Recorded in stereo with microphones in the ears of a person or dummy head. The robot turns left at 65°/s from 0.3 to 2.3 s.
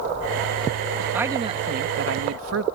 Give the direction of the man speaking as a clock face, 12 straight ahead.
12 o'clock.